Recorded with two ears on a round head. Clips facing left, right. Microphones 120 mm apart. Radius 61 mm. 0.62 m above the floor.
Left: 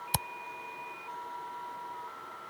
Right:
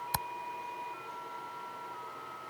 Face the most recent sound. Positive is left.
turn(degrees=25)  # may be behind; listen again after turning